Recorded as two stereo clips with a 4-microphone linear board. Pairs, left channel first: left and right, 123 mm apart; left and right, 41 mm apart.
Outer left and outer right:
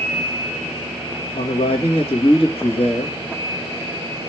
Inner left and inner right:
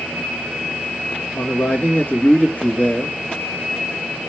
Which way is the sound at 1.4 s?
55° left (ahead or behind).